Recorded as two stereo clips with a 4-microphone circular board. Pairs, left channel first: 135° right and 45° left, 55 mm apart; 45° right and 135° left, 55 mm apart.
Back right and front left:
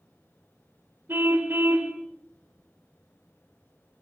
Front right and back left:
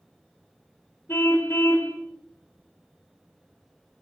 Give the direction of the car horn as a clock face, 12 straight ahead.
12 o'clock.